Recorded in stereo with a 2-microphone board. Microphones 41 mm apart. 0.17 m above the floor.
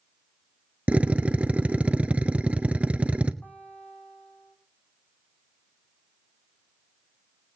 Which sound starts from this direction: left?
A guitar, at 3.4 s.